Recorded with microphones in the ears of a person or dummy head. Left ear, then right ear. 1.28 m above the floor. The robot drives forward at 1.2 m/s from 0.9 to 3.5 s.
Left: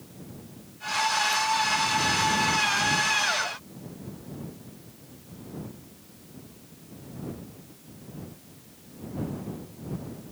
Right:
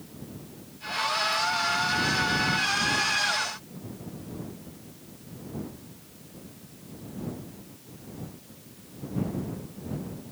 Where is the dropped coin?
No dropped coin in this recording.